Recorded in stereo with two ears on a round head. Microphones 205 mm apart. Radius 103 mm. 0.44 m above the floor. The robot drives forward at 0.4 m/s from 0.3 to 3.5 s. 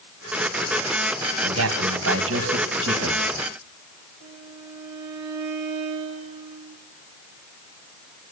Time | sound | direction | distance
1.4 | a man speaking | 70° right (ahead or behind) | 3.5 m
4.2 | a violin | 90° right | 5.5 m